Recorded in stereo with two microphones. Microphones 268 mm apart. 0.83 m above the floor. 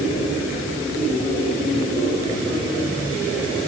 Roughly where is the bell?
No bell in this recording.